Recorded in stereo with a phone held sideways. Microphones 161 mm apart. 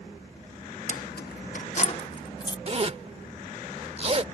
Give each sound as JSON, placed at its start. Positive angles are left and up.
{"t": 0.9, "sound": "keys jangling", "side_deg": 50}
{"t": 2.7, "sound": "a zipper", "side_deg": -40}